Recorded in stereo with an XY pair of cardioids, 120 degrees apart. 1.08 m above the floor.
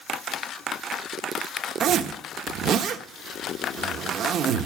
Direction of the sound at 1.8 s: 65° right.